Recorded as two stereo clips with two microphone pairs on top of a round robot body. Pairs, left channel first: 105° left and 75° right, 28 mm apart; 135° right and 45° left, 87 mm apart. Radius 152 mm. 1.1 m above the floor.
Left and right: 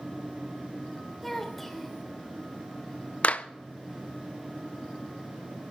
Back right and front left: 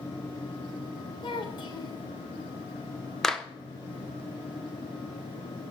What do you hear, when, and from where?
1.2 s a child speaking: 170° right, 3.5 m
3.2 s a clap: 140° left, 1.0 m